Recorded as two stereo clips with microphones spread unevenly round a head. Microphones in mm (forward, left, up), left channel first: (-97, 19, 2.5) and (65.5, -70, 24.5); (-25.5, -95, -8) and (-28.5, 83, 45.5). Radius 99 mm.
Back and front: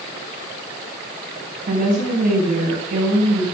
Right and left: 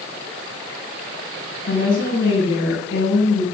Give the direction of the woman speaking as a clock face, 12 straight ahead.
2 o'clock.